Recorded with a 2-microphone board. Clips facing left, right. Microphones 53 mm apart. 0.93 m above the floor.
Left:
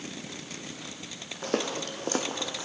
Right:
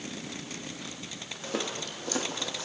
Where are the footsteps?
60° left (ahead or behind), 2.0 m; by 2.7 s 30° left (ahead or behind), 2.5 m.